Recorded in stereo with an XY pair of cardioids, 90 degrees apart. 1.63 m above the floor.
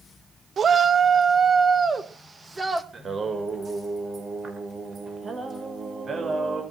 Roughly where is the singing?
Ahead right.